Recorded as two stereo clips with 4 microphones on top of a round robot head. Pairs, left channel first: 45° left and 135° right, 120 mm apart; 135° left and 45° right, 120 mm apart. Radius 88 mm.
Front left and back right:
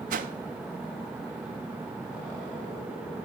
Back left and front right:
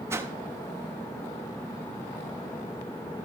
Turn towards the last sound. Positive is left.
turn(degrees=-115)